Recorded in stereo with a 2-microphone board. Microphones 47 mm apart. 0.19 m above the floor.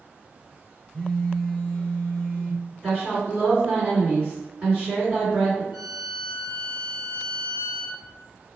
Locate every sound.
0.9 s a phone buzzing: 15° left (ahead or behind), 0.8 m
2.8 s a woman speaking: 30° right (ahead or behind), 1.8 m
5.7 s a violin: 25° right (ahead or behind), 1.4 m